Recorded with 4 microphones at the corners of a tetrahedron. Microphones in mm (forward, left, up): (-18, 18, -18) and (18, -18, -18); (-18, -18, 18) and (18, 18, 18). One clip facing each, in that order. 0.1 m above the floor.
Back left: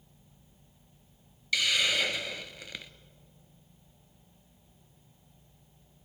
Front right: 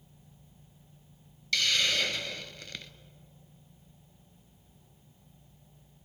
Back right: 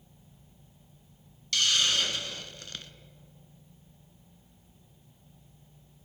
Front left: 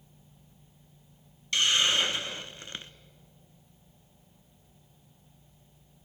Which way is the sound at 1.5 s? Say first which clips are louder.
Back left 1 dB, front left 2 dB; 65° left.